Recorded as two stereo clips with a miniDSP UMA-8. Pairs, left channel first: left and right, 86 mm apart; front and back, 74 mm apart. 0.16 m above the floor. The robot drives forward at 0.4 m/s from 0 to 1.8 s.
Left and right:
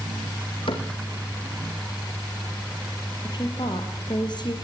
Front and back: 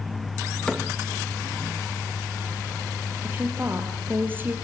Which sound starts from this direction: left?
A cupboard door, at 0.7 s.